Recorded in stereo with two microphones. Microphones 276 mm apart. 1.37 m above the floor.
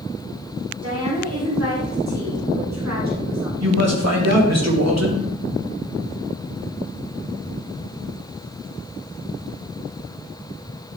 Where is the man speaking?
70° right (ahead or behind), 2.5 m.